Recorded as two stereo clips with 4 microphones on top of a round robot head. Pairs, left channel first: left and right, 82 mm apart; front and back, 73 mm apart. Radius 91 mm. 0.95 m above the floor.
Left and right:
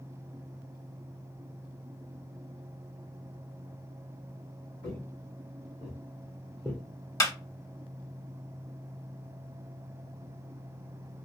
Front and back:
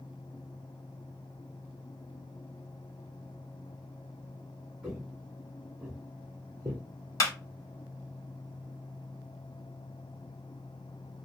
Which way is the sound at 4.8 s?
95° left.